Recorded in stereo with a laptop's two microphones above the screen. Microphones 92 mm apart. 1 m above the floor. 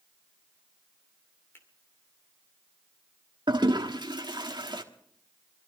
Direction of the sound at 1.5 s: 25° left (ahead or behind).